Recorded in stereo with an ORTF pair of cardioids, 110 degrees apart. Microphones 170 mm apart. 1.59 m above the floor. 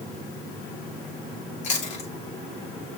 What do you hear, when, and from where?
1.6 s chewing: 45° left, 3.5 m